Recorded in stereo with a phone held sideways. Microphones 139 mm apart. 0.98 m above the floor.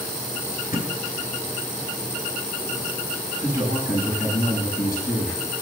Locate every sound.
0.7 s a thud: 80° left, 3.5 m
3.4 s a man speaking: 85° left, 7.5 m